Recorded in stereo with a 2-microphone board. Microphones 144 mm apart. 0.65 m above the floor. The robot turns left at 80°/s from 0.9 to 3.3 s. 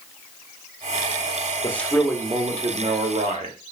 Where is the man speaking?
25° left, 1.1 m; by 3.6 s 110° right, 1.1 m.